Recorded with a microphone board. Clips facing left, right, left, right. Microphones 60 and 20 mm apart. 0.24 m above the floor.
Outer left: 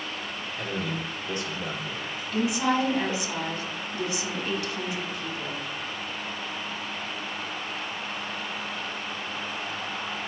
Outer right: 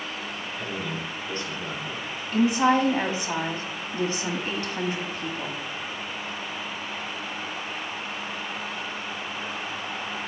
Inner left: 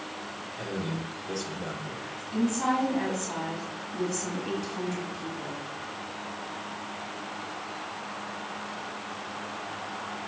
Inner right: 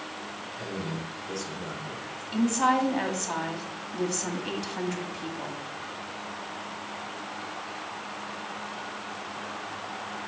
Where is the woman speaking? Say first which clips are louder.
Outer right 5 dB, inner right 3 dB; 40° right (ahead or behind), 1.5 m.